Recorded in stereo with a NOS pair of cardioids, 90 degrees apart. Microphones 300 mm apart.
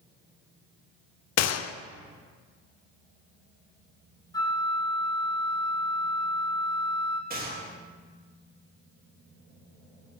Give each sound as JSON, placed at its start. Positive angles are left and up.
{"t": 1.4, "sound": "a gunshot", "azimuth_deg": 60, "distance_m": 0.7}
{"t": 4.3, "sound": "a flute", "azimuth_deg": 15, "distance_m": 1.9}
{"t": 7.3, "sound": "a gunshot", "azimuth_deg": -30, "distance_m": 3.0}